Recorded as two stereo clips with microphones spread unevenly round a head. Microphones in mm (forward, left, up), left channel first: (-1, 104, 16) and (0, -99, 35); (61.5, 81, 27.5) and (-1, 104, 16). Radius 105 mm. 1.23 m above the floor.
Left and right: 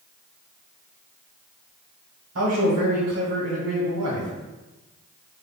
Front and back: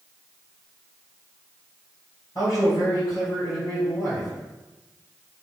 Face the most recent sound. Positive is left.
turn(degrees=-90)